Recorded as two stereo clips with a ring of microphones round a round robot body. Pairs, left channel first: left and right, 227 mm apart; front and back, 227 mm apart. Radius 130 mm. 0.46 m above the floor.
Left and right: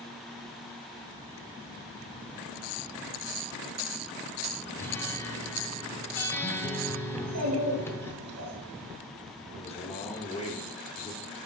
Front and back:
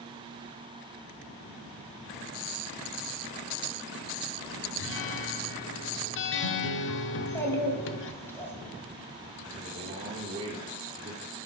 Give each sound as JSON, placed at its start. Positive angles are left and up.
{"t": 4.8, "sound": "a guitar", "azimuth_deg": 10, "distance_m": 0.6}
{"t": 7.1, "sound": "a child speaking", "azimuth_deg": -80, "distance_m": 2.0}
{"t": 9.5, "sound": "a man speaking", "azimuth_deg": 130, "distance_m": 1.6}